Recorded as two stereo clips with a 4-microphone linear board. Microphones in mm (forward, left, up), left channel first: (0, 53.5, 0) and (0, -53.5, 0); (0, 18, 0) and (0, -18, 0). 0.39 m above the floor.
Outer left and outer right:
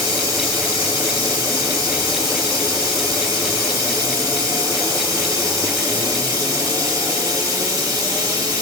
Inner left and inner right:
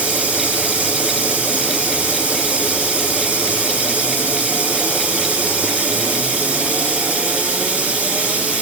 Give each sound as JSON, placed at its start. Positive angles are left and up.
{"t": 0.0, "sound": "running water", "side_deg": -35, "distance_m": 1.9}